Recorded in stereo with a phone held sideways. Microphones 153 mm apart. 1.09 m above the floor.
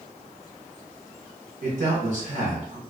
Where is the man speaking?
55° right (ahead or behind), 1.5 m.